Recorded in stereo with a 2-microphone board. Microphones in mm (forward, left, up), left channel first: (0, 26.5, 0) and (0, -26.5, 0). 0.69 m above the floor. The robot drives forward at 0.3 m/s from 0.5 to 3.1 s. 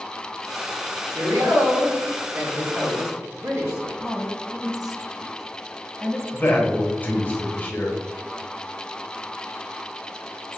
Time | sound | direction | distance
1.1 | a woman speaking | 65° right (ahead or behind) | 1.5 m
3.8 | a woman speaking | 10° right (ahead or behind) | 1.0 m
6.3 | a man speaking | 30° left (ahead or behind) | 0.9 m